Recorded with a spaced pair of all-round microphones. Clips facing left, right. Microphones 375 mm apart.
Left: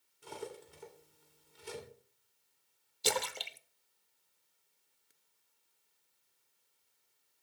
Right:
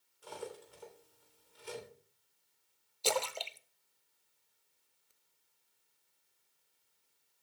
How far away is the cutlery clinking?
About 3 m.